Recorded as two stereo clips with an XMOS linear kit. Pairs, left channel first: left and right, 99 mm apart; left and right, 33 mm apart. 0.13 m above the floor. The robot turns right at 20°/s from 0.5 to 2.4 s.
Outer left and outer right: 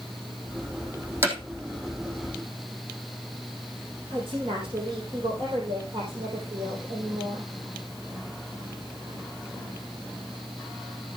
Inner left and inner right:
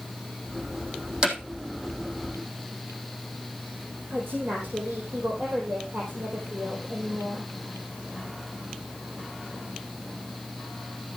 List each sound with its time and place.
1.2 s hammering: 25° right (ahead or behind), 3.5 m; by 1.4 s 20° right (ahead or behind), 3.5 m
4.1 s a woman speaking: 60° right (ahead or behind), 4 m